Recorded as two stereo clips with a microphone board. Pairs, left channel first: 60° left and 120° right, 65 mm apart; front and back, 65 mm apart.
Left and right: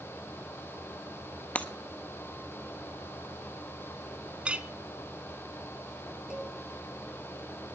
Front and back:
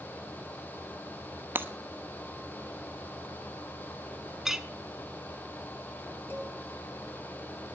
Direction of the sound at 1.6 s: 125° left.